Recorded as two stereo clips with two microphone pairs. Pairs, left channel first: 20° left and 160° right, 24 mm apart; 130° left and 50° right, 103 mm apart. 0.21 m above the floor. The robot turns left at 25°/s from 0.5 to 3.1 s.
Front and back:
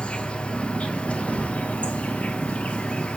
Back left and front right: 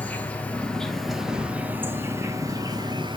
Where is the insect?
55° left, 0.9 m; by 3.2 s 10° right, 0.9 m.